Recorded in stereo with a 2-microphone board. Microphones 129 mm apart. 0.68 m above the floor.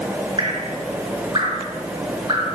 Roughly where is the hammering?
No hammering in this recording.